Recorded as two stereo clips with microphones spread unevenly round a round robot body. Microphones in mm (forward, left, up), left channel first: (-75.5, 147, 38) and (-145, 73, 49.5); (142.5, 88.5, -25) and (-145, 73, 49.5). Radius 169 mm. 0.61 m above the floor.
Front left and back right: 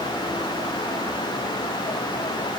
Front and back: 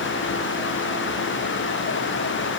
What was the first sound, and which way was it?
Only background noise.